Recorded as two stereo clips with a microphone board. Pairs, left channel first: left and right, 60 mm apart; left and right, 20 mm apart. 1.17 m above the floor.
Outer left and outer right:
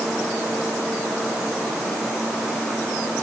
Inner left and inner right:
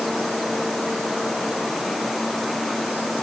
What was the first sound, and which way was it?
Only background noise.